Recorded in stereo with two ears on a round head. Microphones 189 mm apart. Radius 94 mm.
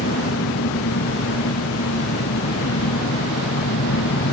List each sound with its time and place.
0.0 s an engine running: 60° left (ahead or behind)